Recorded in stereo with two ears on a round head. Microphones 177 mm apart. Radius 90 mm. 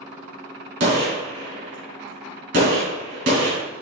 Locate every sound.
0.8 s a gunshot: 50° right (ahead or behind), 3 m